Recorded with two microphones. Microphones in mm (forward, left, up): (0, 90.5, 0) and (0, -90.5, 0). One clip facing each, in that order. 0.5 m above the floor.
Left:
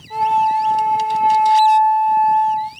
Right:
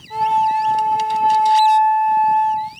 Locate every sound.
0.1 s a flute: 5° left (ahead or behind), 1.7 m